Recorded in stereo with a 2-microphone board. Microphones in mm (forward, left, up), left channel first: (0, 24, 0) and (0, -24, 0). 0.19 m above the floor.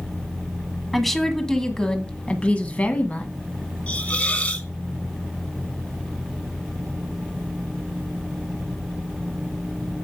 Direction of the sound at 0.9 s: 5° left (ahead or behind).